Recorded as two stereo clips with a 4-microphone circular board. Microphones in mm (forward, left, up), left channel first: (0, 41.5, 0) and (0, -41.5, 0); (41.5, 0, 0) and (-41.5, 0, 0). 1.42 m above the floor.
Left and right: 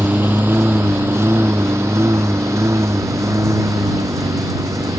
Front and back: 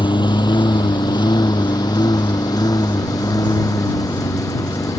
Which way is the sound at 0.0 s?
20° right.